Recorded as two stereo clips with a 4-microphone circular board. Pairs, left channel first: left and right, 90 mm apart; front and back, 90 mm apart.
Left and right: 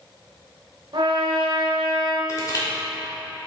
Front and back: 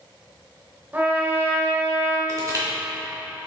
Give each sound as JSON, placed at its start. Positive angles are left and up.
{"t": 0.9, "sound": "a trumpet", "azimuth_deg": -110, "distance_m": 0.9}
{"t": 2.3, "sound": "crushing", "azimuth_deg": 135, "distance_m": 1.9}